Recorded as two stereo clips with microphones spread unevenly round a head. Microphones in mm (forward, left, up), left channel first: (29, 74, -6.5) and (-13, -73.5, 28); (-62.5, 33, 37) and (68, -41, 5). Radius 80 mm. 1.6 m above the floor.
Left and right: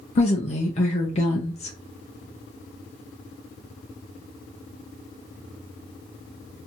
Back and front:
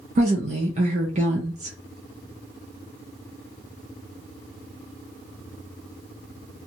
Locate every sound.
0.1 s a woman speaking: 20° left, 0.5 m